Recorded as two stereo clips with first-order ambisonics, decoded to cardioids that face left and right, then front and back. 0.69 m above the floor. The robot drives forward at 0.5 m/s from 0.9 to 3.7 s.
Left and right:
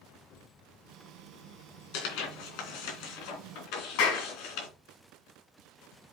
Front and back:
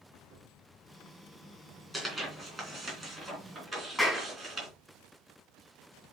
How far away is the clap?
About 4 m.